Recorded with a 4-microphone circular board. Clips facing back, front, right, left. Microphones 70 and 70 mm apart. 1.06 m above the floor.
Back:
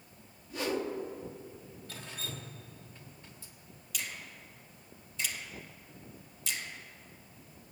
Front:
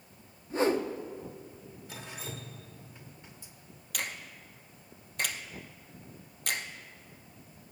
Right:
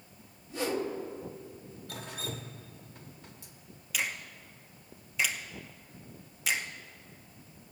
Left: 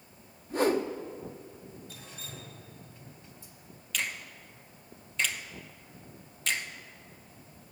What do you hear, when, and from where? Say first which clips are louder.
0.5 s a whoosh: front 6 dB, left 6 dB; 55° left, 0.7 m
1.9 s dripping: front 1 dB, right 7 dB; 75° right, 1.1 m
3.9 s a finger snap: front 4 dB, right 1 dB; 10° right, 0.8 m